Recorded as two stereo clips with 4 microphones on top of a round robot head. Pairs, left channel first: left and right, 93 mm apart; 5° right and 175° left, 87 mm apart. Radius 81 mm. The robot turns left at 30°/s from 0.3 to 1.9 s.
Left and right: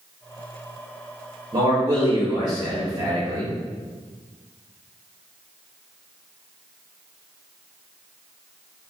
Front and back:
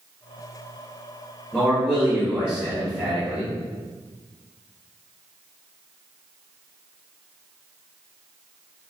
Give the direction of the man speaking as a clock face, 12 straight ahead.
3 o'clock.